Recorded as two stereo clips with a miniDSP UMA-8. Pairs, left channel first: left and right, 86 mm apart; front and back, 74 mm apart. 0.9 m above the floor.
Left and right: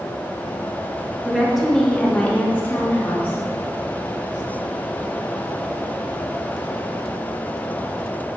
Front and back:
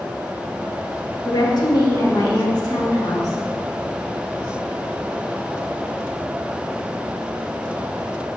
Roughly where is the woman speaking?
Ahead.